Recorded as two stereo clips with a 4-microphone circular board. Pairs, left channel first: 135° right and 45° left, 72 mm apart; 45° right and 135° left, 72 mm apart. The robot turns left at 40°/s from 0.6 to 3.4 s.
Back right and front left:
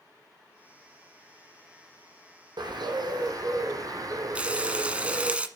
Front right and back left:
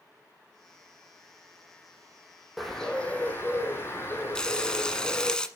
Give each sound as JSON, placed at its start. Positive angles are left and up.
{"t": 2.6, "sound": "a bird", "azimuth_deg": 45, "distance_m": 2.5}
{"t": 4.3, "sound": "frying", "azimuth_deg": 15, "distance_m": 1.2}